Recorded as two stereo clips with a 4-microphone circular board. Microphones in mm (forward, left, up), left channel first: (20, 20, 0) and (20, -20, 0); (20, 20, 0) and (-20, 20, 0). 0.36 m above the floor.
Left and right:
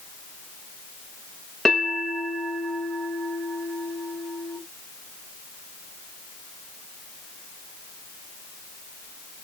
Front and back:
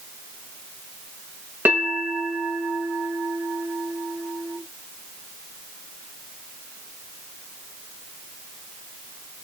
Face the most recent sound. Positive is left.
turn(degrees=170)